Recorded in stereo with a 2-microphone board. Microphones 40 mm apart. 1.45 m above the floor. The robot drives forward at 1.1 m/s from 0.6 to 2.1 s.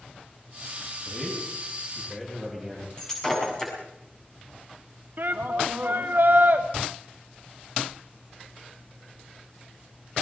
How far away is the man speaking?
About 9 m.